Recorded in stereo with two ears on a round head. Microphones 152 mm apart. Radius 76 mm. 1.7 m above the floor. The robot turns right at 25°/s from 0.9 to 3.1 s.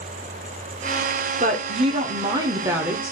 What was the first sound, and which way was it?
A woman speaking, 50° right.